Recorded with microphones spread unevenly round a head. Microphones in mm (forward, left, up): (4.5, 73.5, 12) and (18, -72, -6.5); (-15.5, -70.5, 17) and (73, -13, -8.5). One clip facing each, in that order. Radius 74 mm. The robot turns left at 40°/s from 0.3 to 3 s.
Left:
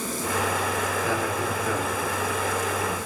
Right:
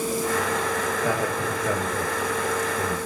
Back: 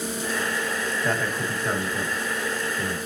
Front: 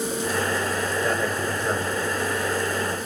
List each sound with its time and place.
1.0 s a man speaking: 40° right, 3.5 m; by 3.0 s 120° right, 3.5 m